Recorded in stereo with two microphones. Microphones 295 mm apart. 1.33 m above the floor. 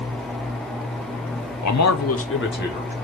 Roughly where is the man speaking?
Left.